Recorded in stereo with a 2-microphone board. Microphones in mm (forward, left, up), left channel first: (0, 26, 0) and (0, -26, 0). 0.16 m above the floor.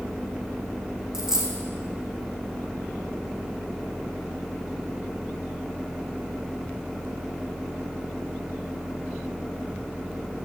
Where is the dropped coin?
10° right (ahead or behind), 2.5 m.